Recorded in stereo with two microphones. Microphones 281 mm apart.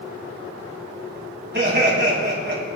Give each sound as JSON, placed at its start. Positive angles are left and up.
{"t": 1.5, "sound": "laughter", "side_deg": -35, "distance_m": 4.5}